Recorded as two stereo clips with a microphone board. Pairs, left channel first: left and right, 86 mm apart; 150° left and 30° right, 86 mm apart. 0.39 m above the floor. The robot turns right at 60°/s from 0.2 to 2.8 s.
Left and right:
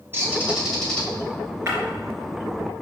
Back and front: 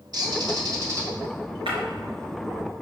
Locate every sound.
0.1 s a bird: 35° right, 1.9 m; by 1.1 s 20° left, 1.9 m
1.7 s breaking glass: 30° right, 3 m; by 1.8 s 20° right, 3 m